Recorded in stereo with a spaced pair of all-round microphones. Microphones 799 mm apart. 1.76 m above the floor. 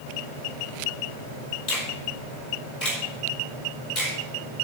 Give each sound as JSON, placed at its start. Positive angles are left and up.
{"t": 1.7, "sound": "a finger snap", "side_deg": 55, "distance_m": 4.5}